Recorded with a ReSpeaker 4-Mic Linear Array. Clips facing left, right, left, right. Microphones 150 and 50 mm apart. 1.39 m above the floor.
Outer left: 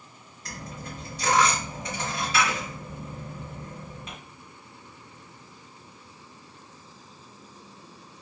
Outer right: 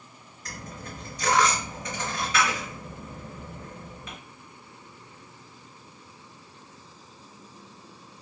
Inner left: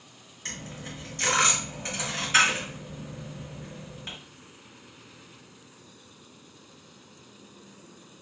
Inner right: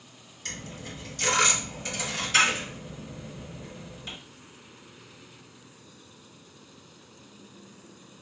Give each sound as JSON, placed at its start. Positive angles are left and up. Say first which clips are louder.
{"t": 0.5, "sound": "a dropped coin", "louder": "outer left 1 dB, even", "side_deg": 30, "distance_m": 2.0}